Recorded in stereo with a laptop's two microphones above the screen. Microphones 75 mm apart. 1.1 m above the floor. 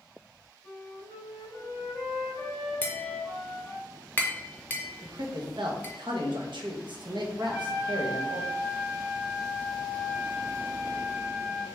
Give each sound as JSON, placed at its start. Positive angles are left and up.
{"t": 0.6, "sound": "a flute", "side_deg": 20, "distance_m": 1.9}
{"t": 2.8, "sound": "tapping", "side_deg": 25, "distance_m": 0.8}
{"t": 5.0, "sound": "a man speaking", "side_deg": -80, "distance_m": 0.7}
{"t": 7.4, "sound": "a trumpet", "side_deg": -25, "distance_m": 1.3}